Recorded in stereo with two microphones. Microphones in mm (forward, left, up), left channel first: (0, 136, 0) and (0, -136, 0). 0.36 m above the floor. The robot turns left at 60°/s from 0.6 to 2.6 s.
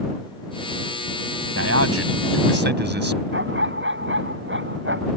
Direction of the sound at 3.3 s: 45° right (ahead or behind).